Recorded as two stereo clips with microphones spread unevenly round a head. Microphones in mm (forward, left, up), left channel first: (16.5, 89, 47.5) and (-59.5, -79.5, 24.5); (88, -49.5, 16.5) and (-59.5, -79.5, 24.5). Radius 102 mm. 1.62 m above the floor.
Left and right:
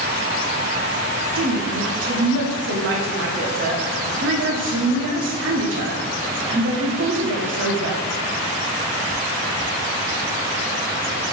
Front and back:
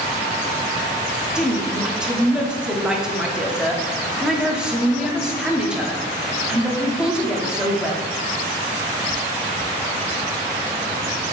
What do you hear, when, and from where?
1.4 s a woman speaking: 85° right, 0.7 m